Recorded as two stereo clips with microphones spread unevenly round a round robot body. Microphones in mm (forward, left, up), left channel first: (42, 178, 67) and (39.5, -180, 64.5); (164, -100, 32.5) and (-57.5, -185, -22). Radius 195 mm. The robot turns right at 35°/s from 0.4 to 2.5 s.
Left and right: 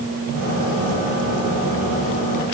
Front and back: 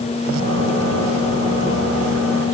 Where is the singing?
I don't hear singing.